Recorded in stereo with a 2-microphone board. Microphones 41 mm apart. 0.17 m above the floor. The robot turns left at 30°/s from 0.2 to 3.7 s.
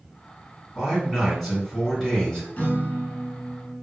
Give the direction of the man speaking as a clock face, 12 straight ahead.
5 o'clock.